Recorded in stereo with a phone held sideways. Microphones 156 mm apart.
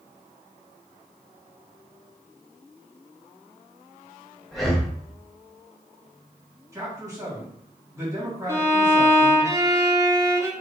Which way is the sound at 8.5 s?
20° right (ahead or behind).